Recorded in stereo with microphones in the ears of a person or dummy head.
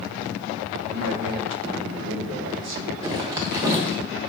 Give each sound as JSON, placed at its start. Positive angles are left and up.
{"t": 0.9, "sound": "a man speaking", "side_deg": -60, "distance_m": 1.0}
{"t": 3.0, "sound": "a zipper", "side_deg": -25, "distance_m": 0.8}